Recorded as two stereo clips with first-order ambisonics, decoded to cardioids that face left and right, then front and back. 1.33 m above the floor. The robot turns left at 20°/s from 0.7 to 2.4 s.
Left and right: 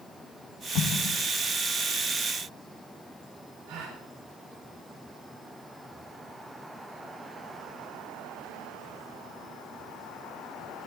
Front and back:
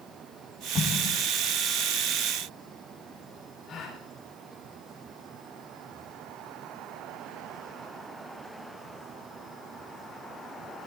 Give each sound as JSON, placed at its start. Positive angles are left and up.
{"t": 0.8, "sound": "an explosion", "azimuth_deg": 60, "distance_m": 1.0}
{"t": 3.7, "sound": "a gasp", "azimuth_deg": -65, "distance_m": 3.5}